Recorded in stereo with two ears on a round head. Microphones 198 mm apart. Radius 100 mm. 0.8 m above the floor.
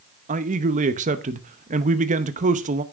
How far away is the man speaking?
About 0.8 m.